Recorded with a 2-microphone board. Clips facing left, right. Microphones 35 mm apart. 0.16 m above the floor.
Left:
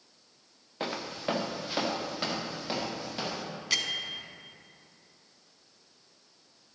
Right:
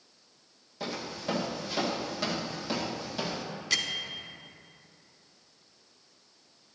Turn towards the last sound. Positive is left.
turn(degrees=5)  # may be behind; listen again after turning